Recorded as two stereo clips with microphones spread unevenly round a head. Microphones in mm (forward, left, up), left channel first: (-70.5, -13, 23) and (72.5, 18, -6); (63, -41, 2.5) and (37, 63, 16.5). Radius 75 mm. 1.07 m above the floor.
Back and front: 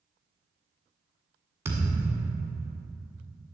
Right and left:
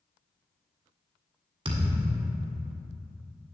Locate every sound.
1.6 s a thud: 90° left, 1.4 m